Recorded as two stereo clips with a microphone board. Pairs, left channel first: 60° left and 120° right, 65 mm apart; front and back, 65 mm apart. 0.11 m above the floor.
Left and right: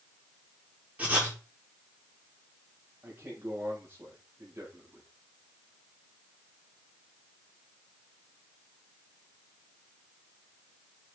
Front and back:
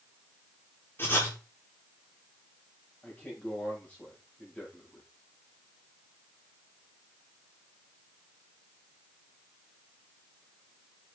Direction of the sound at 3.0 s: 70° right.